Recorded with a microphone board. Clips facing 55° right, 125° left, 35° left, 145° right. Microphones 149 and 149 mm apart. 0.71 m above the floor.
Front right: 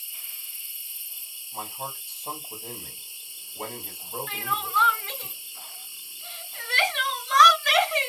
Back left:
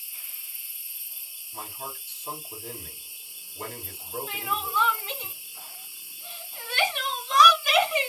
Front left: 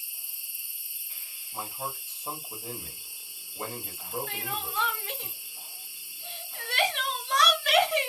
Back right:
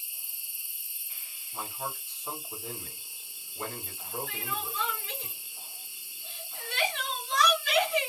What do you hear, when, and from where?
0.0 s an insect: 75° right, 1.0 m
1.5 s a man speaking: 20° right, 2 m
4.3 s crying: 45° left, 1.6 m